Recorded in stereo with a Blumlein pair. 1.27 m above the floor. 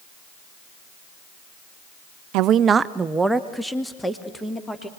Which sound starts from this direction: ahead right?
A woman speaking, at 2.3 s.